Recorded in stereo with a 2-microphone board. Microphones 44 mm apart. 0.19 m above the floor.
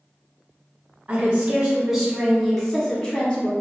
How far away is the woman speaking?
About 1.1 m.